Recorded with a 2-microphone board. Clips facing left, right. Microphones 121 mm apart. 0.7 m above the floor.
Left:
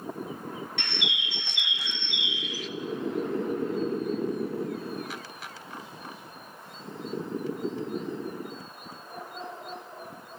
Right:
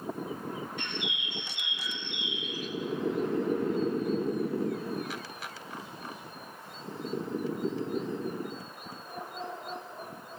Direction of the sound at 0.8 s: 80° left.